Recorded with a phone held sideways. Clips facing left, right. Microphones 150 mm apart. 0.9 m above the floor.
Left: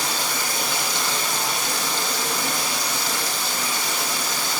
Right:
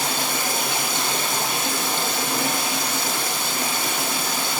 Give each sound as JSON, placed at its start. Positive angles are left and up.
{"t": 0.0, "sound": "running water", "side_deg": -55, "distance_m": 7.5}